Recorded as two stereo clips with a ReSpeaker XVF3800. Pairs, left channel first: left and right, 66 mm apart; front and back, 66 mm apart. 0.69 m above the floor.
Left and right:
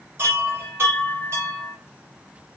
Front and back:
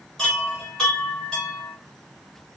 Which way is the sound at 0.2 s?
75° right.